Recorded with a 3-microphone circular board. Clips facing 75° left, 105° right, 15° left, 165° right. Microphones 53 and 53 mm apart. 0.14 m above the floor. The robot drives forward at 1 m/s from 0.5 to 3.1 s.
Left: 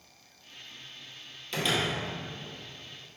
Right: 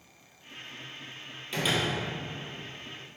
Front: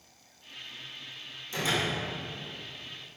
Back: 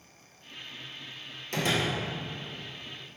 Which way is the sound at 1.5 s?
170° left.